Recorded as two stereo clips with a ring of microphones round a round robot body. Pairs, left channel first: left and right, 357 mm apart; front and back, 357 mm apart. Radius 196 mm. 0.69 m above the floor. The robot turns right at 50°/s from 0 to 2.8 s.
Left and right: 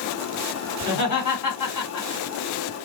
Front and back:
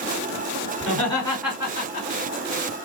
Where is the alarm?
No alarm in this recording.